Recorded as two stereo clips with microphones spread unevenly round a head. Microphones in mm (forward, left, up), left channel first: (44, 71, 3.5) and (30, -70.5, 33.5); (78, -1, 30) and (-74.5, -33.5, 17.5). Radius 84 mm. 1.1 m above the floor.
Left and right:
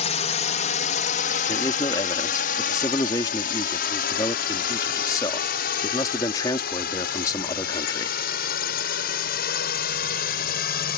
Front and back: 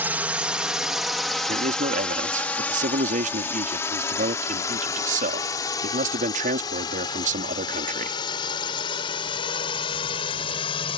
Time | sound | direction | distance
0.0 | a drone | 115° left | ?
1.5 | a man speaking | 150° left | ?